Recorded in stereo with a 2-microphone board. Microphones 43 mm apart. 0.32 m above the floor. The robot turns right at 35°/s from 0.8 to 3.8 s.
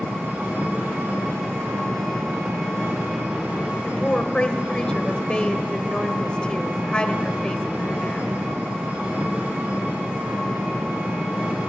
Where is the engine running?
145° right, 6.5 m; by 11.7 s 40° right, 6.5 m.